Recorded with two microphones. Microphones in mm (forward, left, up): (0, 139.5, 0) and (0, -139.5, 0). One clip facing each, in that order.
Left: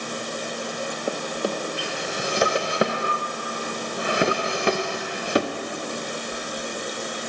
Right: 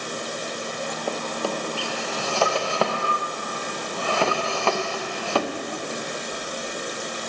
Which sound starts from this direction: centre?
A drawer, at 1.1 s.